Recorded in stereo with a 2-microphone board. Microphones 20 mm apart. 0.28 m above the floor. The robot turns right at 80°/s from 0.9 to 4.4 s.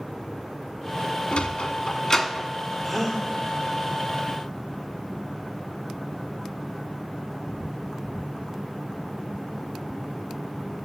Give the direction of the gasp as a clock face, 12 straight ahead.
12 o'clock.